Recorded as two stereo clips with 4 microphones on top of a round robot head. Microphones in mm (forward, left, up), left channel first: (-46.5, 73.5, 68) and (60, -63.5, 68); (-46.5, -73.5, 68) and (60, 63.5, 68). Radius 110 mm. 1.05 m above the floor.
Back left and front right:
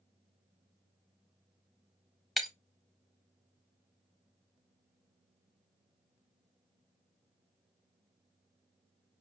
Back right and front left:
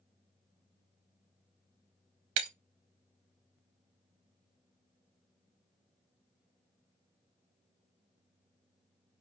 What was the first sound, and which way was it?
Breaking glass, 40° left.